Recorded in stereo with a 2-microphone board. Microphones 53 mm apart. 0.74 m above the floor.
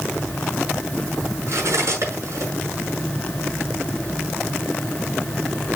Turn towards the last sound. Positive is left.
turn(degrees=-60)  # may be behind; listen again after turning